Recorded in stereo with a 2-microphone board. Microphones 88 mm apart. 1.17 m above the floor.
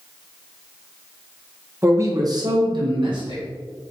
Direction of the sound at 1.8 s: 30° right (ahead or behind).